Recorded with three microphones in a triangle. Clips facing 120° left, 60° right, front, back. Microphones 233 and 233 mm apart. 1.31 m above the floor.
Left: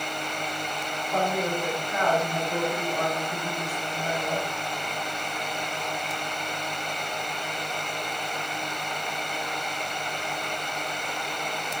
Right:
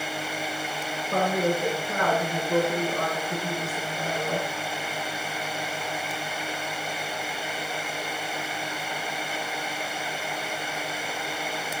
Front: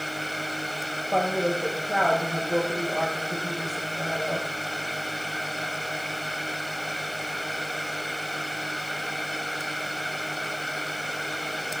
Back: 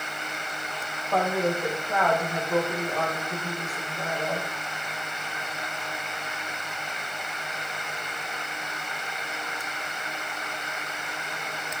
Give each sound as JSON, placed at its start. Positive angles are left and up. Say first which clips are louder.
{"t": 1.1, "sound": "a woman speaking", "louder": "right 3 dB, even", "azimuth_deg": -75, "distance_m": 1.5}